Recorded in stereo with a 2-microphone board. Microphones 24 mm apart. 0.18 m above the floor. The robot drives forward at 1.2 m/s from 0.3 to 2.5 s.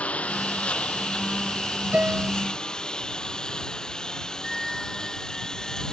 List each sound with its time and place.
0.0 s a lawn mower: 55° left (ahead or behind); by 5.9 s 25° left (ahead or behind)
1.9 s a piano: 60° right (ahead or behind); by 2.3 s 70° right (ahead or behind)
4.4 s a flute: centre (ahead or behind)